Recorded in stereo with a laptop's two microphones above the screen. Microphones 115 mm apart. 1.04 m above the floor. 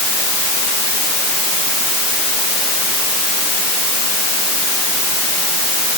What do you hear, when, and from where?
Only background noise.